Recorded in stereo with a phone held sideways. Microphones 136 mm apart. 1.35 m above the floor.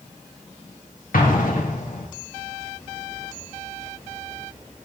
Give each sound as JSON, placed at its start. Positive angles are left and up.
{"t": 1.1, "sound": "an explosion", "side_deg": 90, "distance_m": 2.0}